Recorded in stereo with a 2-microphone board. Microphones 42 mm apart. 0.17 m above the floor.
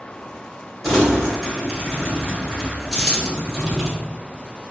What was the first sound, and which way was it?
Crumpling, 10° left (ahead or behind).